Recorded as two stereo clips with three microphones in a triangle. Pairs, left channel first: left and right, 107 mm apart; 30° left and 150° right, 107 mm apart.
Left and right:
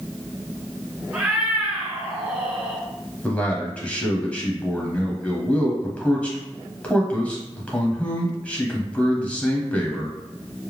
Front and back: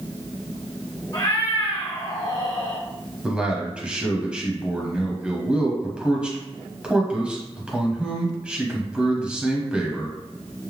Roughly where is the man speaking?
Behind left.